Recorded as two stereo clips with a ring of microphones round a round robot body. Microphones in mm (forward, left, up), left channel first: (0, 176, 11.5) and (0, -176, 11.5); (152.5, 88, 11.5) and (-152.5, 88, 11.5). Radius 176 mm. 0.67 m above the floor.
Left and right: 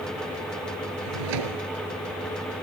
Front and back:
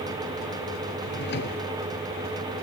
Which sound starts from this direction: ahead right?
A drawer, at 1.0 s.